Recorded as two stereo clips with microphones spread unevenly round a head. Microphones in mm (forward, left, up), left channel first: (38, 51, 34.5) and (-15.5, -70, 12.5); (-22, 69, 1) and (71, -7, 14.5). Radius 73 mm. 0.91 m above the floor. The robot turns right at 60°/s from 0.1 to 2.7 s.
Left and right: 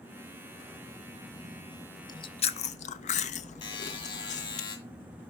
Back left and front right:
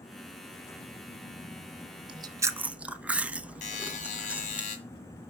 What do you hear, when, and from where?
2.1 s chewing: 5° left, 0.6 m; by 4.6 s 45° left, 0.6 m
3.6 s a buzzer: 120° left, 1.8 m